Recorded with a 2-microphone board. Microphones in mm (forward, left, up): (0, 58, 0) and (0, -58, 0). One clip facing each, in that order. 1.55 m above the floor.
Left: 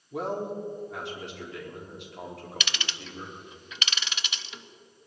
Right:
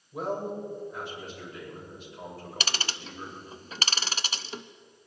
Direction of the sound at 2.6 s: 40° right (ahead or behind).